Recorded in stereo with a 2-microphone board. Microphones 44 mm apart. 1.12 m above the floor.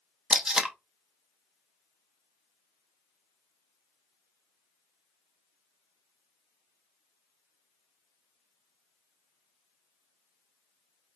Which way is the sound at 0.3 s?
15° right (ahead or behind).